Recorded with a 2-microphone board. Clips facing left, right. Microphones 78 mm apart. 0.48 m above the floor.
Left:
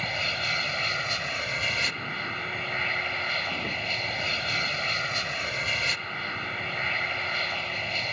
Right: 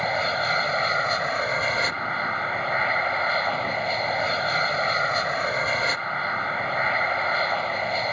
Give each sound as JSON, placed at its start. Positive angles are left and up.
{"t": 0.0, "sound": "an aircraft", "side_deg": -35}